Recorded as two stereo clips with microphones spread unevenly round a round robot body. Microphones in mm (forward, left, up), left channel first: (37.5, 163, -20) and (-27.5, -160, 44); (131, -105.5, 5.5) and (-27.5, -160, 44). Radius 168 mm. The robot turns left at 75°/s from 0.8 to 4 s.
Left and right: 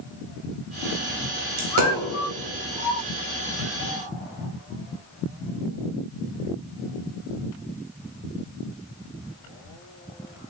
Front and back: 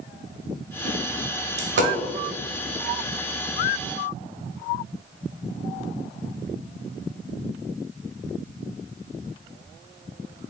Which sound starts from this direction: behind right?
A dropped coin, at 1.6 s.